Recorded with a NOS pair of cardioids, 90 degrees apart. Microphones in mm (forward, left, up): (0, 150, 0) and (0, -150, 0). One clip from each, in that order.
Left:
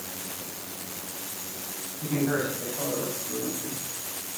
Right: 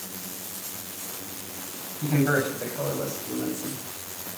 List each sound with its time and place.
2.0 s a man speaking: 50° right, 6 m; by 3.8 s 65° right, 5.5 m